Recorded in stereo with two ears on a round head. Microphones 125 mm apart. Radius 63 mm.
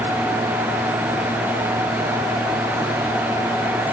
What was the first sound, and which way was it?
Only background noise.